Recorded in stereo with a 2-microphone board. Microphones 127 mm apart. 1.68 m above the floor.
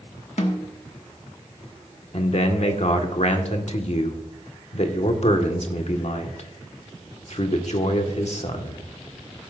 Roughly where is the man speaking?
Left.